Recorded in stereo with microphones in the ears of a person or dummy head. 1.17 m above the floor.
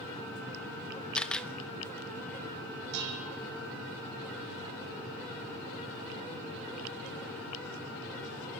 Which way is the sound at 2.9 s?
60° right (ahead or behind).